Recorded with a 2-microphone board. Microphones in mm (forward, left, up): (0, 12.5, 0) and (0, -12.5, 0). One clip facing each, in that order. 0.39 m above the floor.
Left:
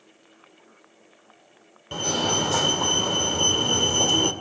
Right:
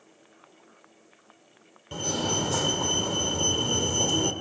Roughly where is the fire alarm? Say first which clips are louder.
Left 4 dB; left.